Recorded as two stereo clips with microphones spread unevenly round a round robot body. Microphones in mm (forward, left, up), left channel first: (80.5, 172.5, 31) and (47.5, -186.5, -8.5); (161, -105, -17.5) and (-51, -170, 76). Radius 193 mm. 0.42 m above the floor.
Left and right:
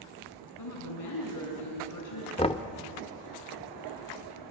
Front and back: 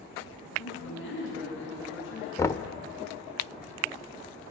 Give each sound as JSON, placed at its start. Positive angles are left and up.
{"t": 0.6, "sound": "a woman speaking", "azimuth_deg": 45, "distance_m": 5.0}
{"t": 2.4, "sound": "knocking", "azimuth_deg": 10, "distance_m": 0.8}